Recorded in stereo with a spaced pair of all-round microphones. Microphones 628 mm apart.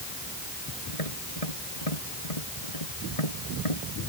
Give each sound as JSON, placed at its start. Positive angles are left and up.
{"t": 0.9, "sound": "tapping", "side_deg": 70}